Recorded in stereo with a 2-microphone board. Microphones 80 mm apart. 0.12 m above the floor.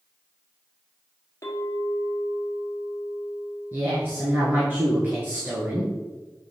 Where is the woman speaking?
30° right (ahead or behind), 1.4 m.